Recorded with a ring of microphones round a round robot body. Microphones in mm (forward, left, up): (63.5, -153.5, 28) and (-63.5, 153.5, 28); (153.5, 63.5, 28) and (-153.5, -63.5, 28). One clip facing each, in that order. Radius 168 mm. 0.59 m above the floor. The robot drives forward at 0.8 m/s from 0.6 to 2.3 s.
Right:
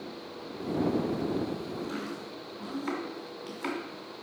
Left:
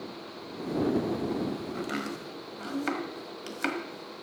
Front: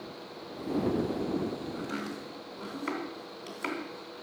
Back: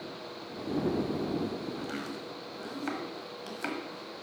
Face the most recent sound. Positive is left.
turn(degrees=135)